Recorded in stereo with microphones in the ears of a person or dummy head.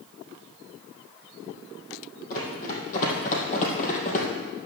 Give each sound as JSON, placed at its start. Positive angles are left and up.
{"t": 2.3, "sound": "running footsteps", "side_deg": 45, "distance_m": 3.5}